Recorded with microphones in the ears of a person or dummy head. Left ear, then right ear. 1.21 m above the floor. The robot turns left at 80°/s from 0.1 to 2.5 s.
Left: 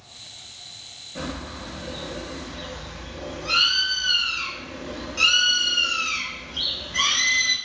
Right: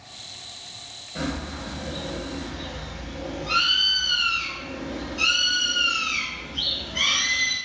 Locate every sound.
1.1 s a bird: 175° right, 1.3 m; by 7.6 s 80° left, 1.3 m